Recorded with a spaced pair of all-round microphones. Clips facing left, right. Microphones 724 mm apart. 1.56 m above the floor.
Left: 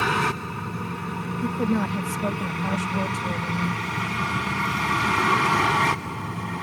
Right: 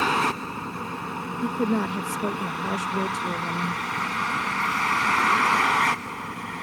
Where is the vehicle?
45° left (ahead or behind); by 6.6 s 70° left (ahead or behind).